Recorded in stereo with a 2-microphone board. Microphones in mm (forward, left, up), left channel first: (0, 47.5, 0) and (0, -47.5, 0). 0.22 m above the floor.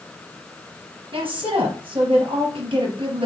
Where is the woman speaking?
75° right (ahead or behind), 4 m.